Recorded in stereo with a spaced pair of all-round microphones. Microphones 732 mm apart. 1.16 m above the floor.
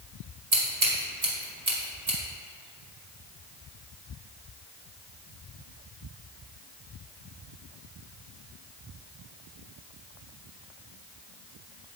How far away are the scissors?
About 2 m.